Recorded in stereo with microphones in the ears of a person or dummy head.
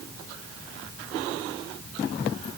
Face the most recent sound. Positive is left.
No sound to turn to.